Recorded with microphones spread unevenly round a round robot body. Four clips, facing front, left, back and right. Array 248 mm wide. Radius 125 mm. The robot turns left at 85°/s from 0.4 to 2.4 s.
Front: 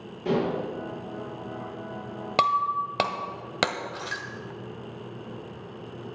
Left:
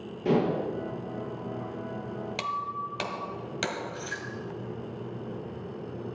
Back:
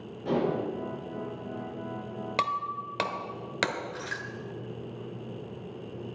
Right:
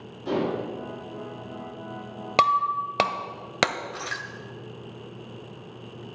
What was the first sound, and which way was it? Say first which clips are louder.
Dishes clattering: left 1 dB, front 2 dB; 75° left.